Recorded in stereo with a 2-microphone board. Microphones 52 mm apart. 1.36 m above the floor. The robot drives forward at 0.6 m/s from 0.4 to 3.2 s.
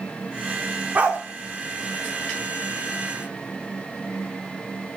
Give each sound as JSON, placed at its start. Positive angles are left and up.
{"t": 0.9, "sound": "a dog barking", "side_deg": -30, "distance_m": 1.1}